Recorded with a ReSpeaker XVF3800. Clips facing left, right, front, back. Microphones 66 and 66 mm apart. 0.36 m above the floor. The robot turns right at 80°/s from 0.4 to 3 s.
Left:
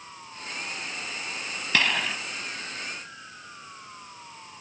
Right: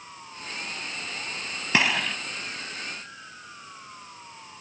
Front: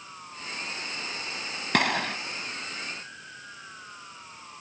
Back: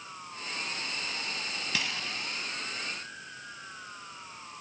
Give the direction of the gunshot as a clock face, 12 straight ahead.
1 o'clock.